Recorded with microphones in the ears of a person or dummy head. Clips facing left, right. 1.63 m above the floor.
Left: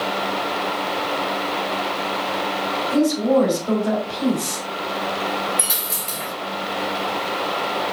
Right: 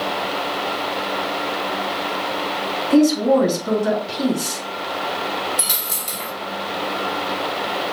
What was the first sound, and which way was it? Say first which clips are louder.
A woman speaking: right 3 dB; 80° right.